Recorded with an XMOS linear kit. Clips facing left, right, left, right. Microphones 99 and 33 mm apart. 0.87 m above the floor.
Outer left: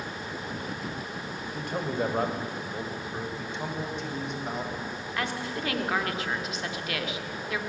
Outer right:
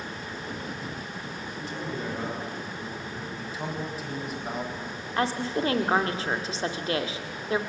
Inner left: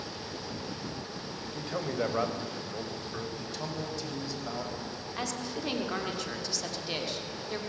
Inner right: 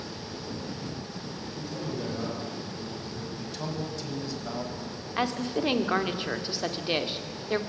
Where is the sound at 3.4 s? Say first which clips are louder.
Even, inner right 2 dB; 5° right (ahead or behind), 5.5 m.